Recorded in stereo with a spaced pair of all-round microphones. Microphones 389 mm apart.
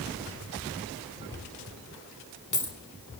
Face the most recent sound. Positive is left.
turn(degrees=50)  # may be behind; listen again after turning